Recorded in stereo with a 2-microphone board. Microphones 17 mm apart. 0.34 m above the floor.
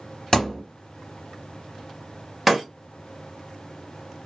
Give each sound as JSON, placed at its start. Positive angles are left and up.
{"t": 0.3, "sound": "a thud", "side_deg": 20, "distance_m": 1.0}
{"t": 2.5, "sound": "breaking glass", "side_deg": -10, "distance_m": 1.3}